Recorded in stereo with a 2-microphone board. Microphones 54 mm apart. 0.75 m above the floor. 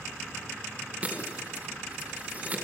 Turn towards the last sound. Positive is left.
turn(degrees=-25)  # may be behind; listen again after turning